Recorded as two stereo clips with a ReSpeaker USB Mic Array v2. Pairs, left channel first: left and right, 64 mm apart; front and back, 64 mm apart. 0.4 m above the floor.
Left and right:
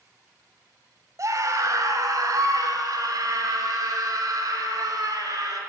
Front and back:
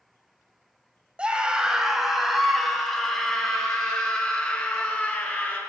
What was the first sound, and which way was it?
A scream, 110° right.